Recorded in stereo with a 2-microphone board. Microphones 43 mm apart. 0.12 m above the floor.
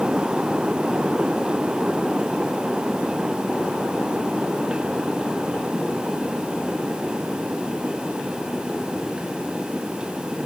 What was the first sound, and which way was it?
Only background noise.